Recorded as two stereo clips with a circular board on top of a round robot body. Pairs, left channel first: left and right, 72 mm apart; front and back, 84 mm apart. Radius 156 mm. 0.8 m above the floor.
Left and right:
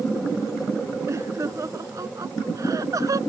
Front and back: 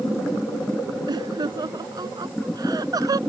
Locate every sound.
1.1 s laughter: 140° right; by 3.2 s 135° right